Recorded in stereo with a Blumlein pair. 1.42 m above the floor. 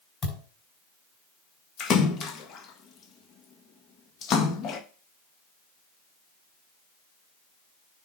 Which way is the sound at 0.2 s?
25° left.